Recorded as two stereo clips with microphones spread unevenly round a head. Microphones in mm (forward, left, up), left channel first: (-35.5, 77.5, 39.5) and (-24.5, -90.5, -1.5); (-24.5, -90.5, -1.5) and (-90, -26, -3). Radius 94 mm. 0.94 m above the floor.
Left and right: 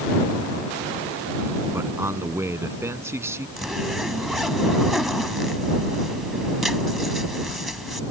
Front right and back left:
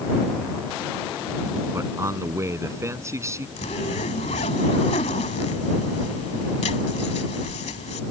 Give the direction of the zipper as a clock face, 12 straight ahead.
12 o'clock.